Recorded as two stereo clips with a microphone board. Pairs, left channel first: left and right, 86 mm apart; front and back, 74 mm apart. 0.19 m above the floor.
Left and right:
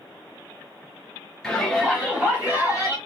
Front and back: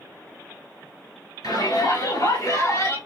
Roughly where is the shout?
Ahead.